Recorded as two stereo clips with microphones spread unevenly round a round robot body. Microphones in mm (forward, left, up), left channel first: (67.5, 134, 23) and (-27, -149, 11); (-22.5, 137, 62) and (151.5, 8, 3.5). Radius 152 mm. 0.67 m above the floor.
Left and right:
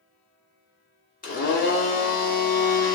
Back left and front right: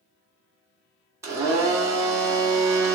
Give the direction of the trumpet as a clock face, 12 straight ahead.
I don't hear a trumpet.